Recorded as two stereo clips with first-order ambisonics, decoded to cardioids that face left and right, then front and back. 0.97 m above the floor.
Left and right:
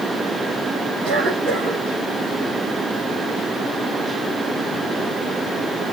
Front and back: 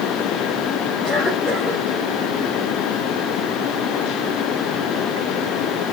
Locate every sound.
1.0 s a cough: 90° right, 4.5 m